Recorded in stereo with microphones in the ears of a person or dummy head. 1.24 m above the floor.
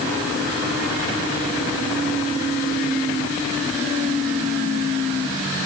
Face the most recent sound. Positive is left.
No sound to turn to.